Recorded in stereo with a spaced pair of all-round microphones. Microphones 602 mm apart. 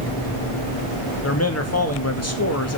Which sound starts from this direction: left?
A man speaking, at 1.2 s.